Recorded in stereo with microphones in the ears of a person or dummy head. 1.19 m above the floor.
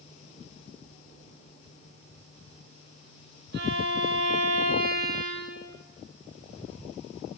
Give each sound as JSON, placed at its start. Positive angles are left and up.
{"t": 3.5, "sound": "a violin", "side_deg": -65, "distance_m": 4.5}